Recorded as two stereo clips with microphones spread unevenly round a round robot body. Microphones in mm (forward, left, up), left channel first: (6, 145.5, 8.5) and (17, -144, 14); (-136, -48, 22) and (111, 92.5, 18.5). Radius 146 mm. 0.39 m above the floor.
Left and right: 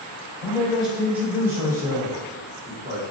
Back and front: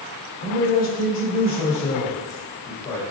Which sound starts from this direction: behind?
A man speaking, at 0.4 s.